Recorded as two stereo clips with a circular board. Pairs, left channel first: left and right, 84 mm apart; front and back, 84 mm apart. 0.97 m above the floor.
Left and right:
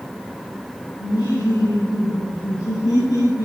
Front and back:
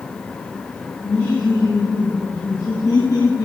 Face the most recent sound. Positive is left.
turn(degrees=50)